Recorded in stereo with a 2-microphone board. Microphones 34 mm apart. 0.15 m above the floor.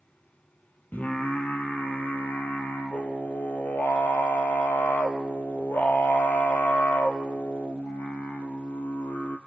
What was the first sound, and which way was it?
Singing, 65° left (ahead or behind).